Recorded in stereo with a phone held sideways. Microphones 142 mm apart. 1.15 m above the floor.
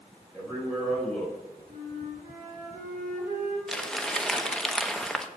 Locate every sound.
0.3 s a man speaking: centre (ahead or behind), 4.5 m
1.7 s a flute: 60° right (ahead or behind), 3.5 m
3.7 s crumpling: 5° left (ahead or behind), 0.7 m